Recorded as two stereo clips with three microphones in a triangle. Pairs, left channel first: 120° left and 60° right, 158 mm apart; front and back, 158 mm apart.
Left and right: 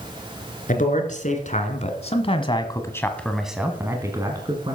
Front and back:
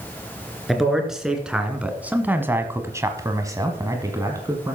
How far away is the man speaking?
About 2.5 m.